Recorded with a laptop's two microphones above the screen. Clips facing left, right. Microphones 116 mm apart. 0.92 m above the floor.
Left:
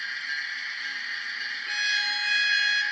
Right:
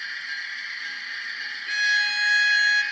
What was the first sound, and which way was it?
A violin, 45° left (ahead or behind).